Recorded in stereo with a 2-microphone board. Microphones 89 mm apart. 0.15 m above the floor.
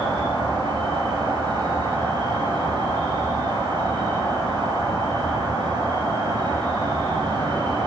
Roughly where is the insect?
Right.